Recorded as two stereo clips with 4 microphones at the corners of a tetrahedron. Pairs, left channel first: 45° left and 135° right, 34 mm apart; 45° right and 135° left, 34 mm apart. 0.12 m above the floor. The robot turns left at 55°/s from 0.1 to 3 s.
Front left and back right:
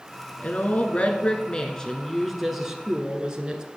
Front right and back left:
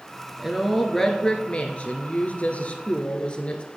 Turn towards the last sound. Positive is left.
turn(degrees=-80)